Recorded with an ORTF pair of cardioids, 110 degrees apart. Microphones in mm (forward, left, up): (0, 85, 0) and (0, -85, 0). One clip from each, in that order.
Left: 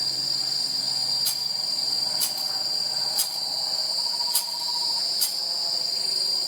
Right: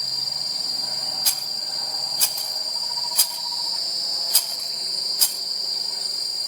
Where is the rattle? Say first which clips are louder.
Right 1 dB; 40° right, 0.5 m.